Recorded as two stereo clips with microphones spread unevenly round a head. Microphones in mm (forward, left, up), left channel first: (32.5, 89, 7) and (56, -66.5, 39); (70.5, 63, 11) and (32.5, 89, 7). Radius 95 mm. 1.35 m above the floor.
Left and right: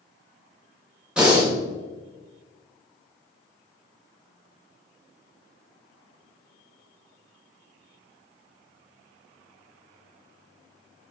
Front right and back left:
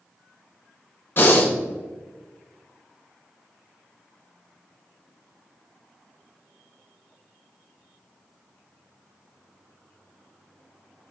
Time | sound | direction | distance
1.2 | breathing | straight ahead | 1.2 m